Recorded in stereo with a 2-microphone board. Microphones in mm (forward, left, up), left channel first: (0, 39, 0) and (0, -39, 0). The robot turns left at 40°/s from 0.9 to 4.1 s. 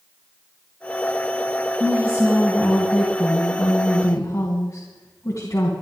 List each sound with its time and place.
1.8 s a woman speaking: 135° right, 2.5 m; by 5.7 s 130° left, 2.5 m